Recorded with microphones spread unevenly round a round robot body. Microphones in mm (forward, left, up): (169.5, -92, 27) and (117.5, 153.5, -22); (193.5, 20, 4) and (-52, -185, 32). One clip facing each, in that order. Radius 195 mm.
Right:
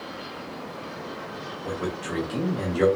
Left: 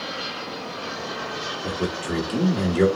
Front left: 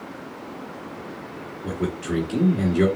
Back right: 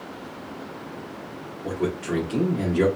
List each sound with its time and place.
1.6 s a man speaking: 100° left, 1.5 m